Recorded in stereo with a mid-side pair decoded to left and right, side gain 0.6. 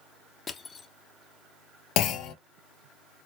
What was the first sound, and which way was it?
Crushing, 35° left.